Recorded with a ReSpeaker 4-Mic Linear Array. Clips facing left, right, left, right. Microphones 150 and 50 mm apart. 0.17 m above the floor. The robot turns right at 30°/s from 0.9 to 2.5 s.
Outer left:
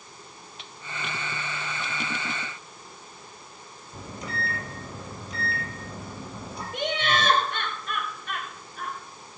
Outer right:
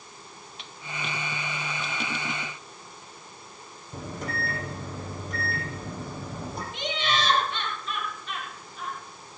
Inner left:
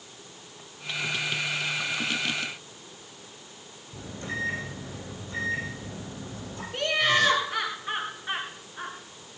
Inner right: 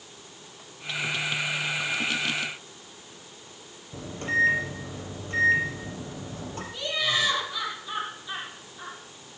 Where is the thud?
No thud in this recording.